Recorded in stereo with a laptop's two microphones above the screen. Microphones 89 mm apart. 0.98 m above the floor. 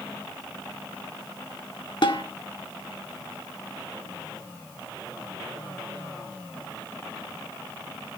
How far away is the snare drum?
About 1.8 m.